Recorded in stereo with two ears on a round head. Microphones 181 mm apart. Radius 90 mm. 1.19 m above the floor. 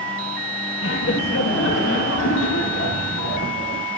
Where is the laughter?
65° left (ahead or behind), 1.6 m; by 3.9 s 75° left (ahead or behind), 3.5 m.